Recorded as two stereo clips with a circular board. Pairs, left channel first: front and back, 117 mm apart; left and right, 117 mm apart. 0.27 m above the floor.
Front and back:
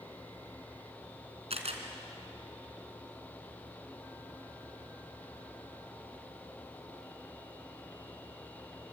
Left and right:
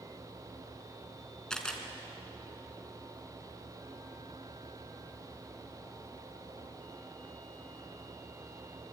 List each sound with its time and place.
1.5 s a camera shutter: 175° left, 3 m